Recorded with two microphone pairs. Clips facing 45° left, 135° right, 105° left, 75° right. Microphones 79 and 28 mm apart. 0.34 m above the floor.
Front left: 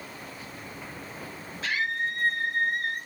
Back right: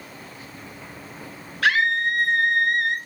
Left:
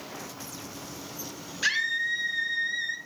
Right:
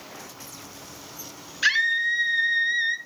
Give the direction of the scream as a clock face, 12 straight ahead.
5 o'clock.